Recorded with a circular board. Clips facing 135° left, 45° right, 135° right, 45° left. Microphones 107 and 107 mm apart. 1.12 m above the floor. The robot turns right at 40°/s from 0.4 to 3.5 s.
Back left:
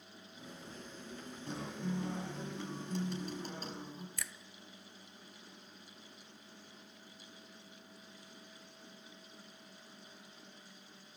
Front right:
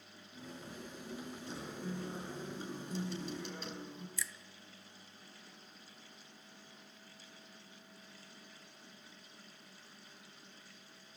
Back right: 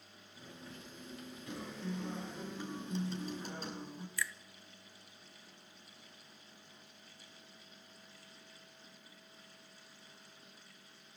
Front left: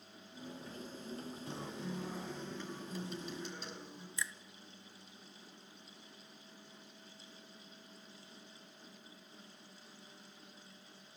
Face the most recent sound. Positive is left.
turn(degrees=110)